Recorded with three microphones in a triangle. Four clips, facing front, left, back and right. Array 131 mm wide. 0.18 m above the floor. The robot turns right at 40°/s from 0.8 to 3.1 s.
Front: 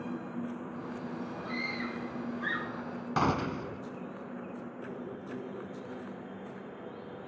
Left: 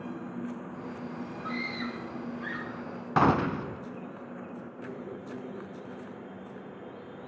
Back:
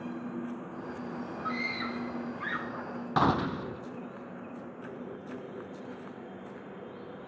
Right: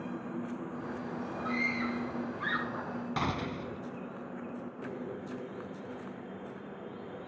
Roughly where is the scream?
Behind.